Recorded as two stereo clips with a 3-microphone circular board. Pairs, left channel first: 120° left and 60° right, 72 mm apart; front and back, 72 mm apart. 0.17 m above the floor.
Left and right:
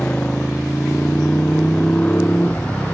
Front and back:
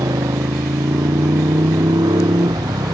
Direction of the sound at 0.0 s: 170° right.